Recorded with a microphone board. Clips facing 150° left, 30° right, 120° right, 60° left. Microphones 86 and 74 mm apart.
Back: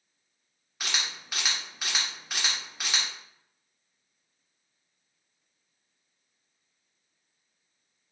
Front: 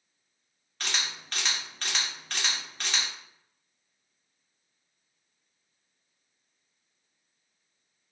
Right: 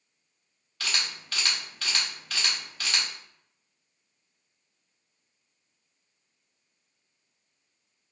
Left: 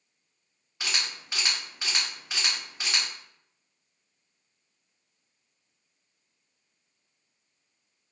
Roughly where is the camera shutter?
Left.